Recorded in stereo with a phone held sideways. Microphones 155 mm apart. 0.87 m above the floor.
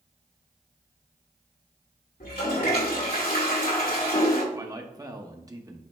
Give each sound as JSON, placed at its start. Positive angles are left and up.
{"t": 2.2, "sound": "a toilet flushing", "side_deg": 70, "distance_m": 2.5}
{"t": 4.5, "sound": "a man speaking", "side_deg": -25, "distance_m": 0.8}